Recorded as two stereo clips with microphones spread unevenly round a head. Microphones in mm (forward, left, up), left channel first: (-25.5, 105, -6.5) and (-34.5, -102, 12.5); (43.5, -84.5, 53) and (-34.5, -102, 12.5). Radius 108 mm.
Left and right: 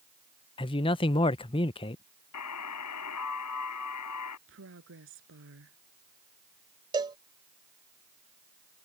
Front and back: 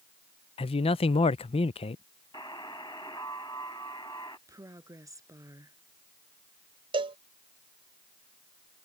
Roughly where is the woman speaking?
Behind right.